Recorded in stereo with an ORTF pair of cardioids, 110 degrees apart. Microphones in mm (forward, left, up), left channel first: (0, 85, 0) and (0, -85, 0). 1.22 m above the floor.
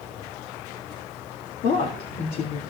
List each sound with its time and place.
1.6 s a woman speaking: 60° left, 2 m